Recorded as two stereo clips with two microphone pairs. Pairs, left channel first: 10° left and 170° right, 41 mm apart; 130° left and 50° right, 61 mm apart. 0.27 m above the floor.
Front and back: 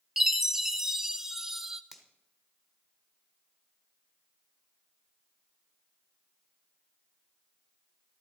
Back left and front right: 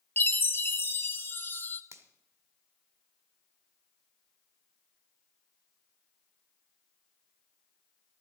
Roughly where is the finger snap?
Right.